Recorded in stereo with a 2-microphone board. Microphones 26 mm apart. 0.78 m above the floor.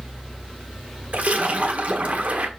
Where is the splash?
70° right (ahead or behind), 1.4 m.